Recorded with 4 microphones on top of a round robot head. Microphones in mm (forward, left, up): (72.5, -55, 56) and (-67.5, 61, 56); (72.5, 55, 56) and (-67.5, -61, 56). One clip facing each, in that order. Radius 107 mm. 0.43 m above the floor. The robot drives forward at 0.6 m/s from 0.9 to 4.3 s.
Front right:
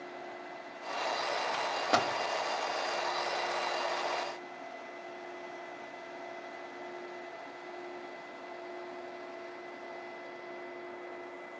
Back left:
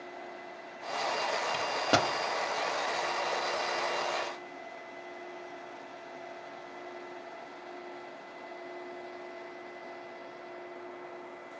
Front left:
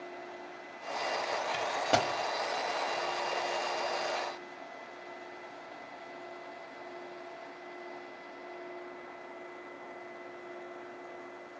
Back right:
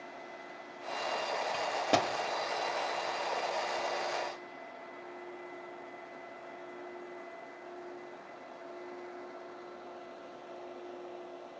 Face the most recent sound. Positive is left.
turn(degrees=170)